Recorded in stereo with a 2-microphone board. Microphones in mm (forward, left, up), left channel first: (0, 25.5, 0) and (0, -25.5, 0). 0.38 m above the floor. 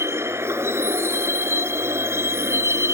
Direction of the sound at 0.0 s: 55° right (ahead or behind).